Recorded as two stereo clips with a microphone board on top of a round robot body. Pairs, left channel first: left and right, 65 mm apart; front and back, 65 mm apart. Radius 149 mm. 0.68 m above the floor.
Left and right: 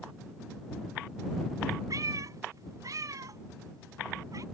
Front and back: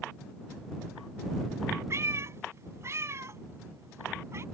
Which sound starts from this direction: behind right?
A cat meowing, at 1.9 s.